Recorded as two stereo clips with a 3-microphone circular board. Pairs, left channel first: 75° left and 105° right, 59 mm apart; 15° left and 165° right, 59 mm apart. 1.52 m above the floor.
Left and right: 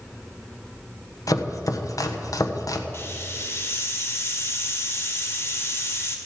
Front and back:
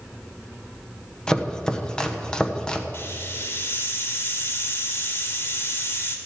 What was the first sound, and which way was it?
Chopping, 90° left.